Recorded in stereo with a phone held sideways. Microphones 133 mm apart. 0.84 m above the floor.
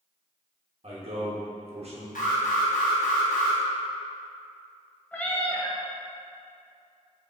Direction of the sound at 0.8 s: 50° right (ahead or behind).